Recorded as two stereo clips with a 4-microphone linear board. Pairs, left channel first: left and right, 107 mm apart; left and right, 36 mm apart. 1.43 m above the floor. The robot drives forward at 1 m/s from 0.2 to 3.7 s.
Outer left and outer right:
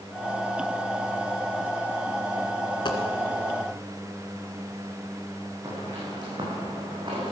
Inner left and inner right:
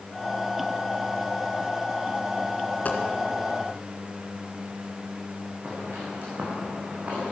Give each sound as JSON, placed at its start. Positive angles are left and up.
{"t": 2.9, "sound": "a dropped coin", "side_deg": 45, "distance_m": 1.9}
{"t": 5.6, "sound": "footsteps", "side_deg": -35, "distance_m": 6.0}